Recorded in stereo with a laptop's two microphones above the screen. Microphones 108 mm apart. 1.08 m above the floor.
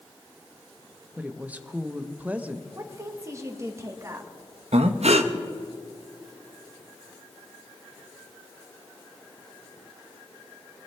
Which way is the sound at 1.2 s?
15° right (ahead or behind).